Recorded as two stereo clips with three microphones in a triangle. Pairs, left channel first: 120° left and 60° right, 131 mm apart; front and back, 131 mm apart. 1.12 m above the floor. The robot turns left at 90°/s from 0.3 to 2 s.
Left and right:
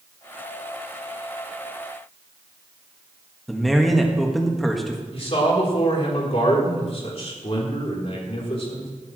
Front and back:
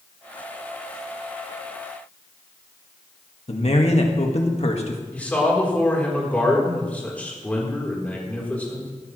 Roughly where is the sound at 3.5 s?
Ahead left.